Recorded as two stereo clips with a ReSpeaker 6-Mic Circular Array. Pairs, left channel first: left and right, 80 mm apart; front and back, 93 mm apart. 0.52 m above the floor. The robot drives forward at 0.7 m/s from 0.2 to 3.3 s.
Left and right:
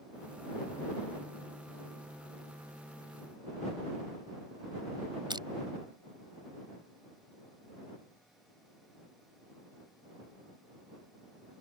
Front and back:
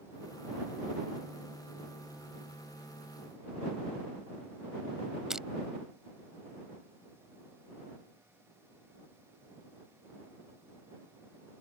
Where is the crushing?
95° right.